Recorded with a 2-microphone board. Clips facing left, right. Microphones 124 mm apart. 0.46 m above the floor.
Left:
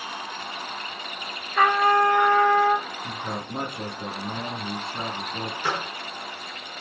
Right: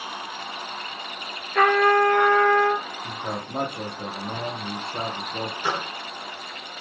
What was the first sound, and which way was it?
A trumpet, 65° right (ahead or behind).